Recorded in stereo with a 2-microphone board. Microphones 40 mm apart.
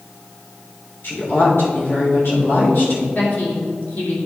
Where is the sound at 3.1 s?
50° left (ahead or behind), 2.5 m.